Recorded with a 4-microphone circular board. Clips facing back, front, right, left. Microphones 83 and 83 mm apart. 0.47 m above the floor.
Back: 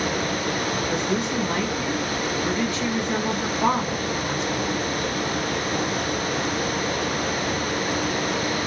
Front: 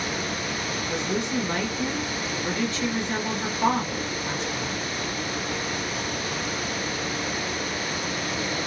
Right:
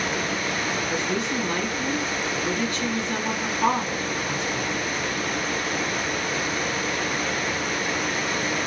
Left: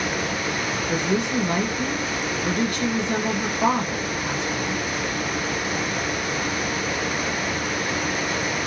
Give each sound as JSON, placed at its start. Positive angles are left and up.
{"t": 0.9, "sound": "a woman speaking", "azimuth_deg": 110, "distance_m": 1.4}